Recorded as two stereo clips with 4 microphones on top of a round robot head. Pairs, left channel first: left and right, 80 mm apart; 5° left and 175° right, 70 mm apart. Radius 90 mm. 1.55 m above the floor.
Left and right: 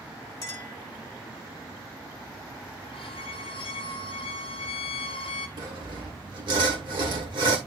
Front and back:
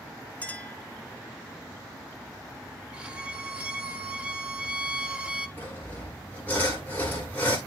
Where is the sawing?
70° right, 1.9 m.